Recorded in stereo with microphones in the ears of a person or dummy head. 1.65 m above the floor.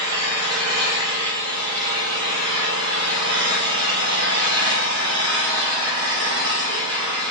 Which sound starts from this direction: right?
An engine running, at 0.0 s.